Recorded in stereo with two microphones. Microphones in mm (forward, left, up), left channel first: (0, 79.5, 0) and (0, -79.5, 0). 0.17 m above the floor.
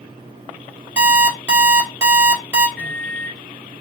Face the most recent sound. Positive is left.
turn(degrees=10)  # may be behind; listen again after turning